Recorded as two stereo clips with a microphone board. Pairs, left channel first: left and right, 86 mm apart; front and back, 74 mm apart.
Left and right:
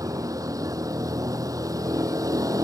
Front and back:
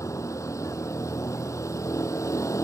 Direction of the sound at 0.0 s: 40° right.